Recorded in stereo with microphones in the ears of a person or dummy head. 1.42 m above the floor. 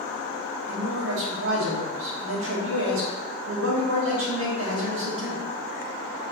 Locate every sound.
0.7 s a man speaking: 65° right (ahead or behind), 1.1 m